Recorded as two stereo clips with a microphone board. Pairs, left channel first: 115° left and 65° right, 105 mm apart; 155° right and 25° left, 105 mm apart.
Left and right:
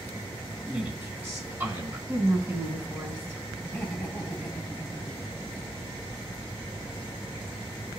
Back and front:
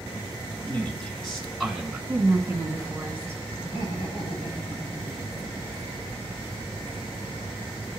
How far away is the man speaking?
About 1.6 m.